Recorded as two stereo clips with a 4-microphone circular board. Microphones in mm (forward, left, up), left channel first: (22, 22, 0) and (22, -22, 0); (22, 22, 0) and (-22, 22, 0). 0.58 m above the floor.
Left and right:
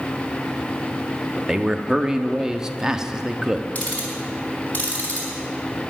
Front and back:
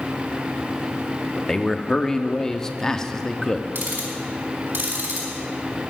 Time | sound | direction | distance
1.4 | a man speaking | 50° right | 0.6 m
3.8 | ticking | 145° left | 3.5 m